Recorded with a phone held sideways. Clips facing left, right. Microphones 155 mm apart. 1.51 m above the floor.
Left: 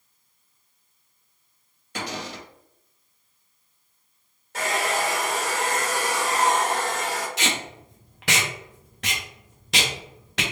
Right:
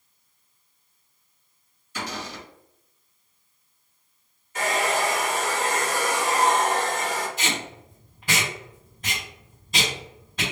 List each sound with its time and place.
1.9 s a cupboard door: 65° left (ahead or behind), 1.7 m
4.5 s a hair dryer: 80° left, 1.8 m
7.4 s tape being pulled: 80° left, 0.9 m